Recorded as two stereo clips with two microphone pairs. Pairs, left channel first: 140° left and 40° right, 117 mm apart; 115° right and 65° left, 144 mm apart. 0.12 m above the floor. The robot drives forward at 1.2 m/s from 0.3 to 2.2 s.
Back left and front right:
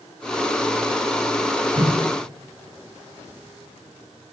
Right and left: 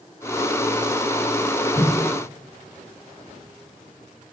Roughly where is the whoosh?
Ahead right.